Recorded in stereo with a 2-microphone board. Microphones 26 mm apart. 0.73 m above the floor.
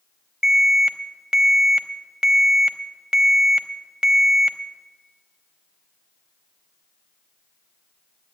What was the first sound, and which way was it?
An alarm, 30° right (ahead or behind).